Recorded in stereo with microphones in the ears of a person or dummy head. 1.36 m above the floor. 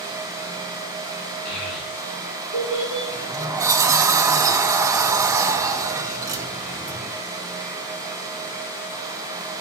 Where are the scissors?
I don't hear scissors.